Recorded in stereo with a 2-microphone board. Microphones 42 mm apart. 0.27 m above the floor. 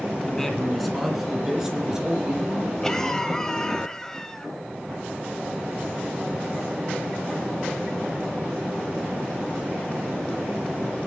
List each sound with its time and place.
0.2 s a man speaking: 10° left (ahead or behind), 2 m; by 2.7 s 15° right (ahead or behind), 4.5 m
2.8 s a cough: 15° left (ahead or behind), 1.0 m